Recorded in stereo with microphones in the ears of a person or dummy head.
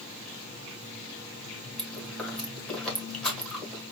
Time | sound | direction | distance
1.8 | chewing | centre (ahead or behind) | 1.9 m